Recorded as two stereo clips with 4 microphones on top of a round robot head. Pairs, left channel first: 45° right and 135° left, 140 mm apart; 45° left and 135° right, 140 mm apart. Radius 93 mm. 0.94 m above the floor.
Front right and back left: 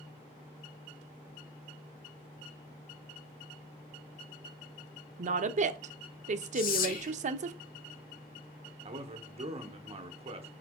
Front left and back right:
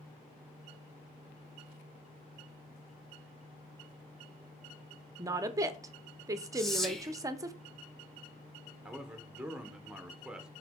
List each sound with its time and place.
5.2 s a woman speaking: 160° left, 0.5 m
6.5 s whispering: 40° right, 1.1 m
8.8 s a man speaking: 145° left, 0.8 m